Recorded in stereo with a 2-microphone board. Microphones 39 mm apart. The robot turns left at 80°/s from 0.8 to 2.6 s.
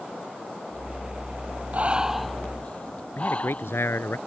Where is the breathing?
40° right (ahead or behind); by 3.8 s 30° left (ahead or behind).